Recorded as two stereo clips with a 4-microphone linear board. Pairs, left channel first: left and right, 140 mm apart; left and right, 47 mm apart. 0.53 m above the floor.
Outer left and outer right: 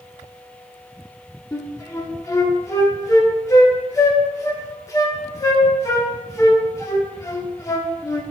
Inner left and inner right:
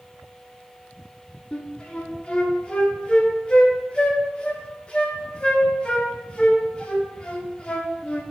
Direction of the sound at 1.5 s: 25° left (ahead or behind).